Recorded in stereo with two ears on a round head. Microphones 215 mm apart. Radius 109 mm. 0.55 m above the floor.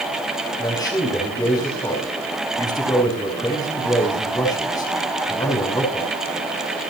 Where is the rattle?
I don't hear a rattle.